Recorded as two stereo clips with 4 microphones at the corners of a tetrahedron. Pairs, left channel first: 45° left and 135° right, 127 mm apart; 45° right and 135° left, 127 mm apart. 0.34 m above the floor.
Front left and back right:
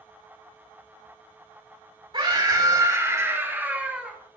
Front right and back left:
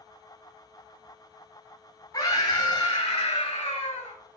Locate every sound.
2.1 s a scream: 95° right, 2.5 m; by 4.2 s 50° right, 2.5 m